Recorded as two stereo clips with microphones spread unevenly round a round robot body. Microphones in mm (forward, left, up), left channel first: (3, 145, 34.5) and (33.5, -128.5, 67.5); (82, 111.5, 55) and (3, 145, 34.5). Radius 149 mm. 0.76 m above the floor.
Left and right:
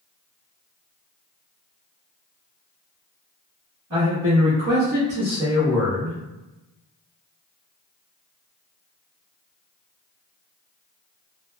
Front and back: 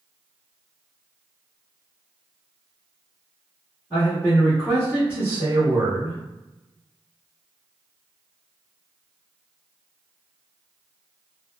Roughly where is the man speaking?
Behind right.